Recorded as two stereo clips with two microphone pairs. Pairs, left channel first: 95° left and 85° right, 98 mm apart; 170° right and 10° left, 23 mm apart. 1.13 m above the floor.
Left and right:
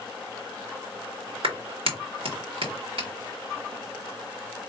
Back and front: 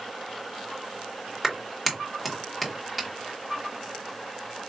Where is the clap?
70° right, 1.5 m.